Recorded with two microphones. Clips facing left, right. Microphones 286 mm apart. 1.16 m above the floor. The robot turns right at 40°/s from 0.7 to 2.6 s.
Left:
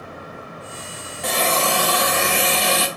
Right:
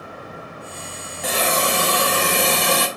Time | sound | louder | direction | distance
1.2 | a hiss | even | straight behind | 1.0 m